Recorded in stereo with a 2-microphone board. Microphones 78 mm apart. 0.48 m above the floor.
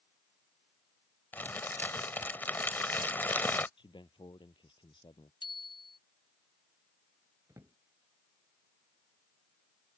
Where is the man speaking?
80° left.